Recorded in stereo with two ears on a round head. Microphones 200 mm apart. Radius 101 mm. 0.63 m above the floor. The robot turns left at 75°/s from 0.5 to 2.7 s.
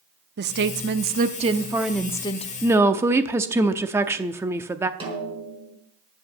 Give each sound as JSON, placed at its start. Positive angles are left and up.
{"t": 0.4, "sound": "a woman speaking", "azimuth_deg": -75, "distance_m": 0.8}
{"t": 2.6, "sound": "a woman speaking", "side_deg": -5, "distance_m": 0.7}
{"t": 5.0, "sound": "a snare drum", "side_deg": -25, "distance_m": 4.5}